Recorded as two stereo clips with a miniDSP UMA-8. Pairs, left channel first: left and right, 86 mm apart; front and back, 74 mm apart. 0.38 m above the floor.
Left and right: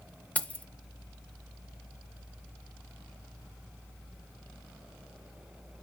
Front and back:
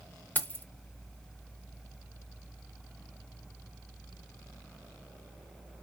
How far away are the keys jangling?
About 0.5 m.